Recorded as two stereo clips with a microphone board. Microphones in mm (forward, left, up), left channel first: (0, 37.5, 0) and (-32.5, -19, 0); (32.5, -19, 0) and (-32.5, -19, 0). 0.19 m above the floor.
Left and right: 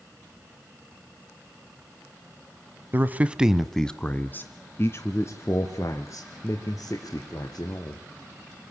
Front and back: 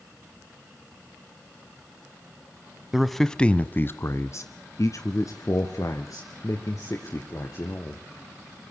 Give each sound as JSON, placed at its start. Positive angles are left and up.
{"t": 2.9, "sound": "a man speaking", "azimuth_deg": -100, "distance_m": 1.3}